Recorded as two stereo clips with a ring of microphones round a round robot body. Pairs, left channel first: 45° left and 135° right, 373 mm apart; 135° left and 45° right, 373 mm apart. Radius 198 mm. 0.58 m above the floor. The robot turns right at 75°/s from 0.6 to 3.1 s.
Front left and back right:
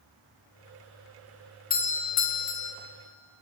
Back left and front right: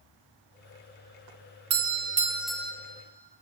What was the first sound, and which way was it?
A doorbell, 15° right.